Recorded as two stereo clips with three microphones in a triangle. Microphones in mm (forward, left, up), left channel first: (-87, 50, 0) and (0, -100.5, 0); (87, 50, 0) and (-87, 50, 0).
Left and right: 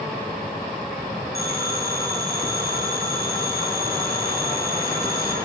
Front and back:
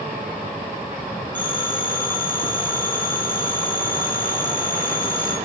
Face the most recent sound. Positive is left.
turn(degrees=-80)